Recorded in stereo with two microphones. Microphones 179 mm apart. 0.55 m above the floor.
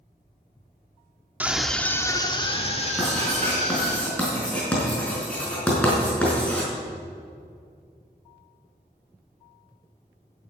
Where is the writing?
5° left (ahead or behind), 5 m.